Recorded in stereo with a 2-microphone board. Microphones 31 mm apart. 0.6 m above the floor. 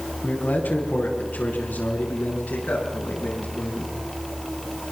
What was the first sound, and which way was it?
A man speaking, 80° left.